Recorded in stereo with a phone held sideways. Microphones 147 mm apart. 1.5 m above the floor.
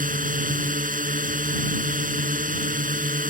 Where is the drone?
65° right (ahead or behind).